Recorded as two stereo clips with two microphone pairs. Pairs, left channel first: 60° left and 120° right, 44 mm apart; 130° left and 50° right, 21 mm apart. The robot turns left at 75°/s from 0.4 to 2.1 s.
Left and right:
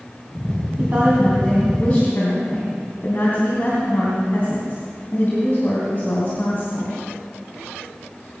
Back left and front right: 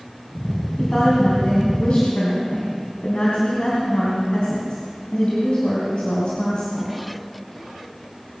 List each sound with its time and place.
0.8 s a woman speaking: 155° right, 3.5 m; by 6.9 s 105° left, 3.5 m